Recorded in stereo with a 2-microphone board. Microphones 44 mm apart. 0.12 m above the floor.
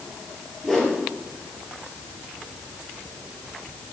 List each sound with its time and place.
0.6 s a whoosh: 10° left (ahead or behind), 2.5 m